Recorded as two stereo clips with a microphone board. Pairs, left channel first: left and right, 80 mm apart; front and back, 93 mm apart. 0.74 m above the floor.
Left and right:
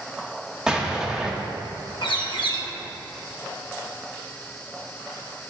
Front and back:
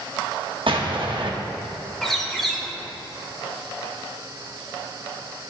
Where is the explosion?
170° right, 0.8 m.